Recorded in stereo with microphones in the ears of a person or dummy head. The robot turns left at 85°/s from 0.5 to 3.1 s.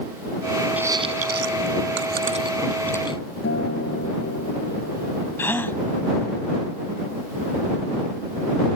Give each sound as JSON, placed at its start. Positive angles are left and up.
{"t": 0.8, "sound": "chewing", "side_deg": -10}
{"t": 3.4, "sound": "a guitar", "side_deg": 65}
{"t": 5.4, "sound": "a gasp", "side_deg": 15}